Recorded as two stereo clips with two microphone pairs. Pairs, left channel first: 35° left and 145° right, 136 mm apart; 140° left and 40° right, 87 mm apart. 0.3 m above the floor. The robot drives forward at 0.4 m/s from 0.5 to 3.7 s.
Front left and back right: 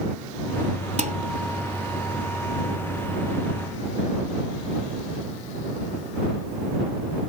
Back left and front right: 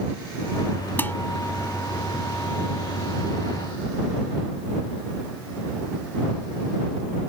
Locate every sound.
1.0 s dishes clattering: 155° right